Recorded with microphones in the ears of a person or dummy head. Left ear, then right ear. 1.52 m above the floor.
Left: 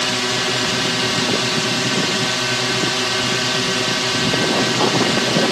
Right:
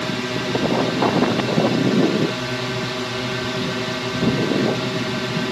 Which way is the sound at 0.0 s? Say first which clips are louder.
Left 5 dB; 35° left (ahead or behind).